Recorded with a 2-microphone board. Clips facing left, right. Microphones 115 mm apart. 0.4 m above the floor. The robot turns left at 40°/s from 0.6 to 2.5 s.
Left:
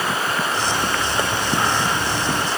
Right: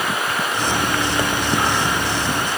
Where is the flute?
No flute in this recording.